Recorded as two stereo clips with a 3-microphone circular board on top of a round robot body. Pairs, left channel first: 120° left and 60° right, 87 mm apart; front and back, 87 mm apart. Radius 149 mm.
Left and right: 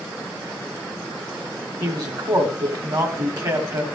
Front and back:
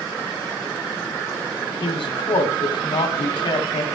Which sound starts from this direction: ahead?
A man speaking, at 1.8 s.